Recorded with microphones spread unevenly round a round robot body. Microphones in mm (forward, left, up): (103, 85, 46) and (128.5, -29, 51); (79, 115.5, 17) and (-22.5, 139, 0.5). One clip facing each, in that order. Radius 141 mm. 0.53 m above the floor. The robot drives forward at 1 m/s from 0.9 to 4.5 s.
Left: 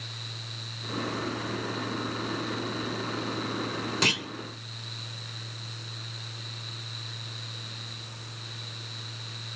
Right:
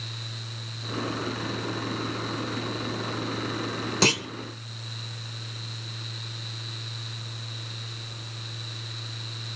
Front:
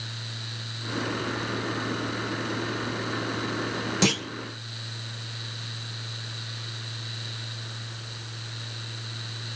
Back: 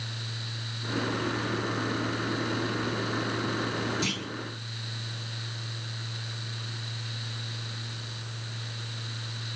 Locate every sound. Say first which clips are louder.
4.0 s a clunk: right 7 dB, front 8 dB; 25° right, 1.8 m